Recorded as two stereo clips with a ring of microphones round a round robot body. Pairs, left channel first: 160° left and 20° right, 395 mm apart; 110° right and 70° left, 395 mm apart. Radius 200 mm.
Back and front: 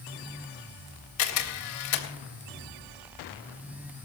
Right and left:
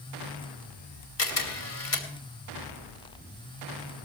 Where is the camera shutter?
160° right, 3 m.